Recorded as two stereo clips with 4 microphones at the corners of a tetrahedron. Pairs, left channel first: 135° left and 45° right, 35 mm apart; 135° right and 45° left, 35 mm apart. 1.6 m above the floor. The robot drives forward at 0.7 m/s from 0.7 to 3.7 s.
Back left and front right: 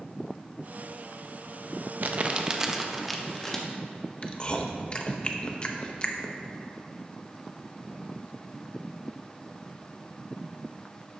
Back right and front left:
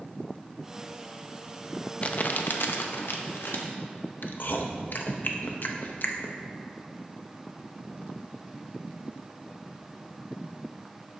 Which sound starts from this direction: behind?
Chewing, at 4.2 s.